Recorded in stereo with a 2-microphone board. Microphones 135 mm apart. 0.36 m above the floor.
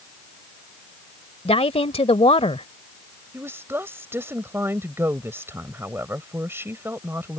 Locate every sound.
1.4 s a woman speaking: 45° left (ahead or behind)
3.3 s a woman speaking: 20° right (ahead or behind)